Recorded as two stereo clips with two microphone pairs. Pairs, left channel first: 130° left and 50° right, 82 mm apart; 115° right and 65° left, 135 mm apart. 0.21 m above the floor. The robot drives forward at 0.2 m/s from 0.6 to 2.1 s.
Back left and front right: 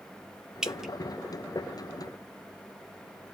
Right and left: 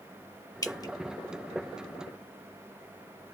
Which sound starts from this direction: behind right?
Dripping, at 0.6 s.